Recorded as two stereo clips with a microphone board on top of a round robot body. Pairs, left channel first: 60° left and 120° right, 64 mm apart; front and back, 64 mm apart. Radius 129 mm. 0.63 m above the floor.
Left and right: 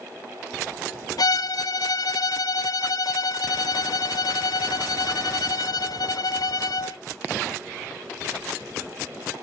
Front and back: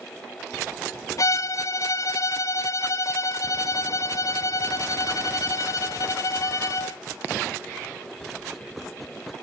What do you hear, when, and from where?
1.2 s a violin: 35° left, 0.8 m